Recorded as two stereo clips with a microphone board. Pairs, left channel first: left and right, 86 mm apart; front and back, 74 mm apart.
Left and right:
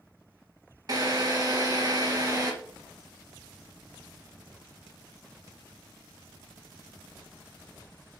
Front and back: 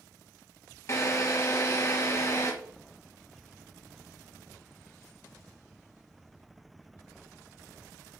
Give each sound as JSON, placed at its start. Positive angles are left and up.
{"t": 0.9, "sound": "a drill", "azimuth_deg": -50, "distance_m": 1.9}